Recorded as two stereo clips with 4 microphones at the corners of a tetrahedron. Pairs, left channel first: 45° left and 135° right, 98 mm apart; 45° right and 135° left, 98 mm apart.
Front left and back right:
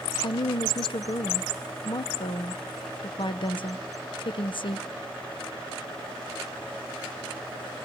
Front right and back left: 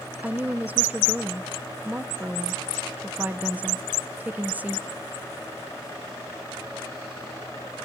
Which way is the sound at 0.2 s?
65° left.